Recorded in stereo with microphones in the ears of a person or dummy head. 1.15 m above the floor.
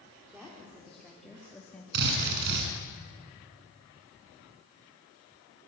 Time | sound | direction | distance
0.3 | a woman speaking | 5° right (ahead or behind) | 3.5 m
1.9 | a drill | 60° right (ahead or behind) | 7 m